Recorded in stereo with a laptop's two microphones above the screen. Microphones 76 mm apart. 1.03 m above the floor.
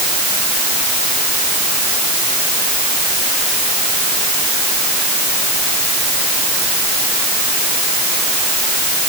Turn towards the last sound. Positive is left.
No sound to turn to.